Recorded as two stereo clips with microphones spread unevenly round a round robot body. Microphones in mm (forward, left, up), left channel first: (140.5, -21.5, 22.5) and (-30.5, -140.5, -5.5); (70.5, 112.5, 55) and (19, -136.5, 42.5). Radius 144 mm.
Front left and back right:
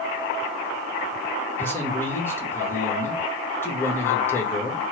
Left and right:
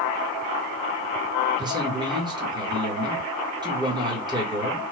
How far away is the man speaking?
About 1.1 m.